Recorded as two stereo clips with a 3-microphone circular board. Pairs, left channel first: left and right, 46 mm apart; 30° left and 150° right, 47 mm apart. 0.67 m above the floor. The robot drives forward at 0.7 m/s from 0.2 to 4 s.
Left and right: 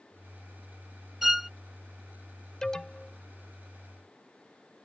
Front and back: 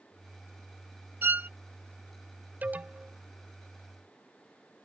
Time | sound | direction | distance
1.2 | a violin | 175° right | ?
2.6 | an alarm | 160° left | ?